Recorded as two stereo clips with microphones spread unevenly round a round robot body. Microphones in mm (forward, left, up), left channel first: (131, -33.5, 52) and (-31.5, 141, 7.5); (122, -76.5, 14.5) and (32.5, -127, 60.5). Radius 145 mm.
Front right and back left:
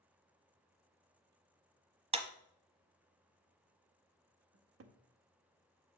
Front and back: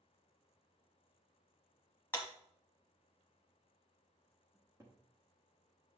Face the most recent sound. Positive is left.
turn(degrees=125)